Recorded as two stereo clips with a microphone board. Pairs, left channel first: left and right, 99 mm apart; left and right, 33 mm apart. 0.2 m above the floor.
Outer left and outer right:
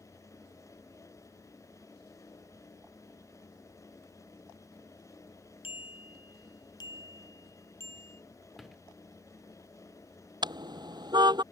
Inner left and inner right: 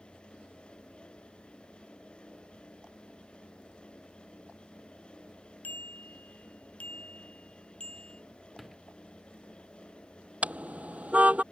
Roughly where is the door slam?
Centre.